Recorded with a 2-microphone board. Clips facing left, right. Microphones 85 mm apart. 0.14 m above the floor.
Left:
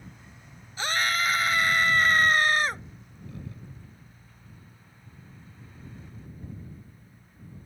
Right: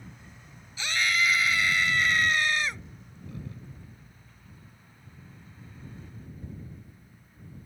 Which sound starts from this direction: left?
A scream, at 0.8 s.